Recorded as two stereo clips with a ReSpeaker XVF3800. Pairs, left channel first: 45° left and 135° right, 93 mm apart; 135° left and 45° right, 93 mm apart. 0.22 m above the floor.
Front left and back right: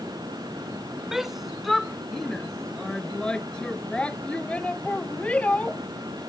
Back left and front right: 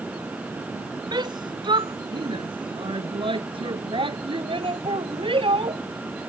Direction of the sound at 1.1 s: 50° right.